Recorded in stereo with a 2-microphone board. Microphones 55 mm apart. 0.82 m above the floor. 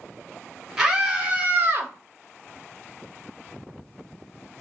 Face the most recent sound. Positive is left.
turn(degrees=-50)  # may be behind; listen again after turning